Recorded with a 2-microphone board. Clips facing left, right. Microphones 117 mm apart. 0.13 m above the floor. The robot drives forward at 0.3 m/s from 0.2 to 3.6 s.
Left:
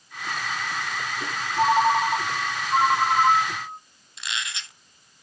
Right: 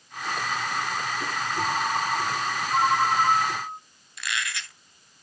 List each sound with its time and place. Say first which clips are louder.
1.6 s a ringtone: left 9 dB; 70° left (ahead or behind), 2 m; by 3.8 s 60° left (ahead or behind), 2.5 m
4.2 s a squeak: right 2 dB; 25° left (ahead or behind), 0.7 m